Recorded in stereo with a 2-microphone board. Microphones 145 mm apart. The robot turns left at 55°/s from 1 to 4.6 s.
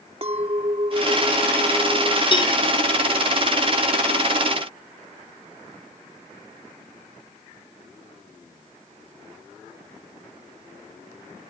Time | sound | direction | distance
0.2 | a clink | 135° right | ?
2.3 | a cowbell | 35° left (ahead or behind) | ?